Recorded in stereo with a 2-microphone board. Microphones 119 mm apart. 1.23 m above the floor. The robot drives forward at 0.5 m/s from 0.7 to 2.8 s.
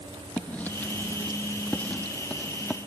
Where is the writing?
15° left (ahead or behind); by 2.8 s 10° left (ahead or behind).